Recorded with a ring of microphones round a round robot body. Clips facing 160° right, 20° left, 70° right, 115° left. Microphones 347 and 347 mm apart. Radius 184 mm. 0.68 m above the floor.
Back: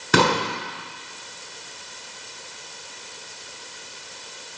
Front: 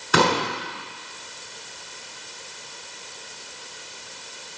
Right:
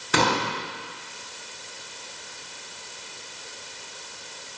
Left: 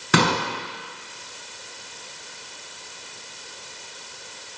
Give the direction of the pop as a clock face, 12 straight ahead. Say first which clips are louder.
Back 1 dB, left 3 dB; 7 o'clock.